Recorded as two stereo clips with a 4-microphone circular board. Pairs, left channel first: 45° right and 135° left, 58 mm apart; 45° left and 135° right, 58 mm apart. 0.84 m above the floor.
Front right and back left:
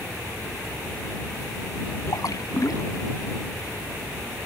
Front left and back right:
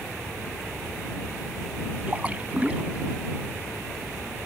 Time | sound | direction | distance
2.1 | a splash | 70° right | ?